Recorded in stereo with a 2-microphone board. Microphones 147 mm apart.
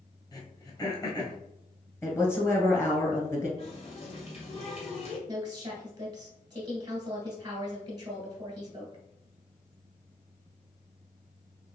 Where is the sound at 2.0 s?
15° left (ahead or behind), 1.3 m.